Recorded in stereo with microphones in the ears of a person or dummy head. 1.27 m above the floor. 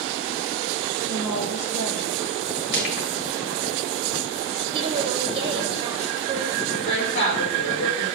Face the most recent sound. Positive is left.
turn(degrees=65)  # may be behind; listen again after turning